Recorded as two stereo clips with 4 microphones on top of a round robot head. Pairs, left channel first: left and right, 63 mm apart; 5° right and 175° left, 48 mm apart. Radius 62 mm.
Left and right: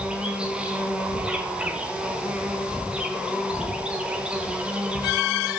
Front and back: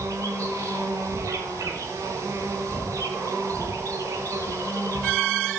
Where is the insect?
165° right, 3.5 m.